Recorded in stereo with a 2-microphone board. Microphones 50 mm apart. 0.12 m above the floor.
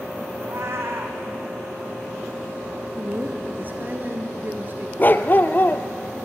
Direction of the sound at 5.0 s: 40° left (ahead or behind).